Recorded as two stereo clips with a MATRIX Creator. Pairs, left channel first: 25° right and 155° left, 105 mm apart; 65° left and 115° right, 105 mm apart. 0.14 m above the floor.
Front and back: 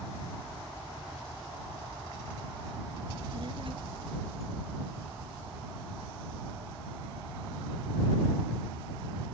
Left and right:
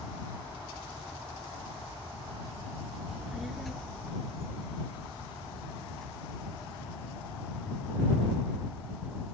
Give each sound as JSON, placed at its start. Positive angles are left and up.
{"t": 3.1, "sound": "a child speaking", "azimuth_deg": 165}